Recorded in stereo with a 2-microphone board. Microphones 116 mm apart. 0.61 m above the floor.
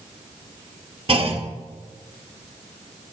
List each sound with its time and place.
1.1 s a clunk: 55° right (ahead or behind), 0.7 m